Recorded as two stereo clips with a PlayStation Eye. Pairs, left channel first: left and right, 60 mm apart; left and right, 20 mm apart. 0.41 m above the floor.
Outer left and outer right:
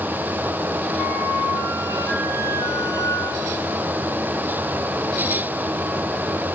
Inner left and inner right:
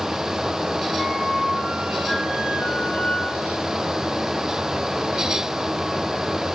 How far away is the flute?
About 4.5 m.